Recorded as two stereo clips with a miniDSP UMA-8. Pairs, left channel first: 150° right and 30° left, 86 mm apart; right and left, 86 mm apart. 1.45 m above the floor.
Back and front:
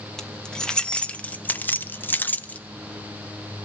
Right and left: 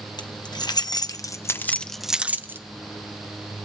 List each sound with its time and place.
0.2 s keys jangling: 65° right, 1.1 m; by 2.6 s 140° left, 0.7 m